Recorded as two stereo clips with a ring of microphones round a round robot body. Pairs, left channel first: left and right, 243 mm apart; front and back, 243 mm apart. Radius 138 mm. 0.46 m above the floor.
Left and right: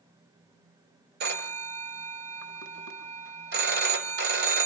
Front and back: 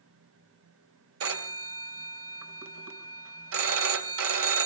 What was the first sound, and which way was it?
A phone ringing, 140° right.